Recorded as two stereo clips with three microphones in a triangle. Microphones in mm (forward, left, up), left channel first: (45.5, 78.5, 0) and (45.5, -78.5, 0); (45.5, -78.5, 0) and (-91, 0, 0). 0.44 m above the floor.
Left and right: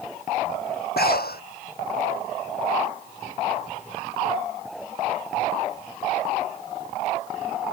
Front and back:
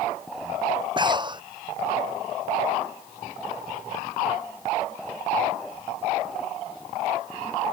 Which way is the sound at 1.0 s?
90° left.